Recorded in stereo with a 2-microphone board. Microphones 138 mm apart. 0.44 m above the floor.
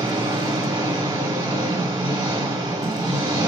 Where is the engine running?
30° right (ahead or behind), 2.0 m.